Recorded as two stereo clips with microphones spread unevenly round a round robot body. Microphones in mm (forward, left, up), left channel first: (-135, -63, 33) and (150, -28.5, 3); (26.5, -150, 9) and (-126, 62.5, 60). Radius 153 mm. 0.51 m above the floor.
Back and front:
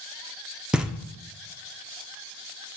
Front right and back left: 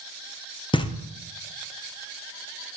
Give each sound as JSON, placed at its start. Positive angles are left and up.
{"t": 0.7, "sound": "knocking", "azimuth_deg": -65, "distance_m": 1.0}